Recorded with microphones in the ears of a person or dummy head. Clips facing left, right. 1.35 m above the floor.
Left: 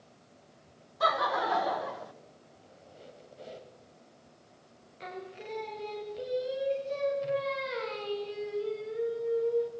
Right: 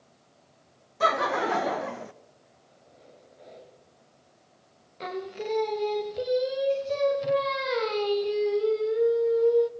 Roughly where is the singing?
Right.